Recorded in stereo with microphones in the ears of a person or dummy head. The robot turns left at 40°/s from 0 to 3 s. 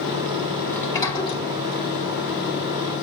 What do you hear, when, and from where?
0.7 s a sliding door: 5° left (ahead or behind), 4.5 m; by 3.0 s 80° left, 4.5 m